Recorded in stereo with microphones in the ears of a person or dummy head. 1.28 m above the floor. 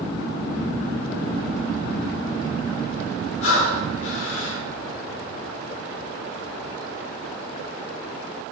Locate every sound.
3.4 s breathing: 90° left, 2.5 m